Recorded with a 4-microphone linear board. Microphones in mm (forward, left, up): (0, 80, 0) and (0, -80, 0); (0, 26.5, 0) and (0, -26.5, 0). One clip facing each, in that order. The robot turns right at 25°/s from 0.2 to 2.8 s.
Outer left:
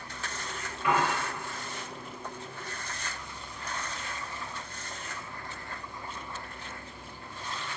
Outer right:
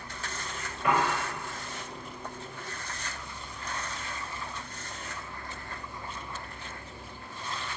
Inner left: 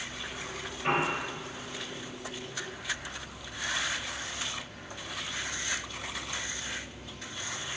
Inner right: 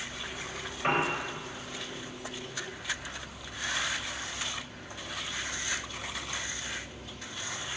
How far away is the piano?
About 1.0 m.